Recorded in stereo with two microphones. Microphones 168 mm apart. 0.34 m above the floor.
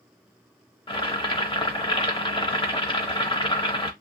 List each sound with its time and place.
0.9 s boiling: 30° left (ahead or behind), 0.8 m